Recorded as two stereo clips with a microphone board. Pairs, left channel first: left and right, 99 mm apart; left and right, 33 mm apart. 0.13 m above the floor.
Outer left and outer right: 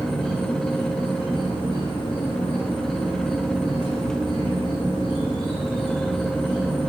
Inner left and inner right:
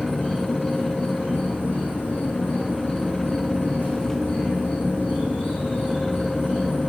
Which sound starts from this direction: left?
An insect, at 0.0 s.